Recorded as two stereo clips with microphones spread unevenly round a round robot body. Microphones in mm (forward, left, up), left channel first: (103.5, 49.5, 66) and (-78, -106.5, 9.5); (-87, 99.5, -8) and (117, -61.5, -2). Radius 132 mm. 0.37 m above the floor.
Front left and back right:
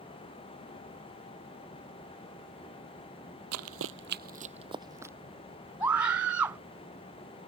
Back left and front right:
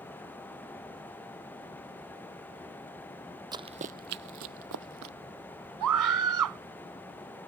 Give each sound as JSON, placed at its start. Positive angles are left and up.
{"t": 3.5, "sound": "running footsteps", "azimuth_deg": -110}
{"t": 5.8, "sound": "a scream", "azimuth_deg": -60}